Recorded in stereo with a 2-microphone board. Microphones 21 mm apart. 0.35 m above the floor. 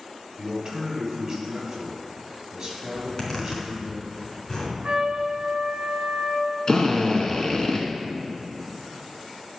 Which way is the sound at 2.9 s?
30° left (ahead or behind).